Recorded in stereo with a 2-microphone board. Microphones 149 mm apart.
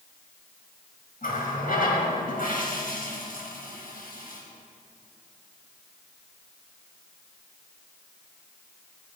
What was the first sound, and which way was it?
A running tap, 70° left (ahead or behind).